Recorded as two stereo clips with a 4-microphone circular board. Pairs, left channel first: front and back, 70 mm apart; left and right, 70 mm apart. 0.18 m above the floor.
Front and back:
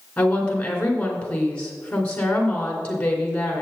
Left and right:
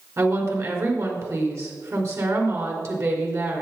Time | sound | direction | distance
0.2 | a woman speaking | 70° right | 2.5 m